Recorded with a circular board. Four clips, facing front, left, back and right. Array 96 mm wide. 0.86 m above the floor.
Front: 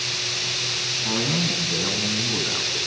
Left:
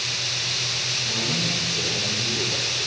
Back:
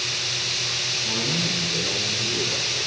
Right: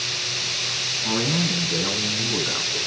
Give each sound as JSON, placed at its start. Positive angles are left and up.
{"t": 1.0, "sound": "a man speaking", "azimuth_deg": -55, "distance_m": 9.0}